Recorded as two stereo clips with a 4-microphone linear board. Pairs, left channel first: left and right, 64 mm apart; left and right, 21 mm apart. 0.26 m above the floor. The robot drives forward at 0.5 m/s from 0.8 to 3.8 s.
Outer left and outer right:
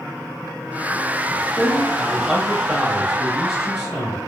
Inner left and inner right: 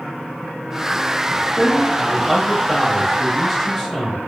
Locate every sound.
1.6 s a man speaking: 5° right (ahead or behind), 1.1 m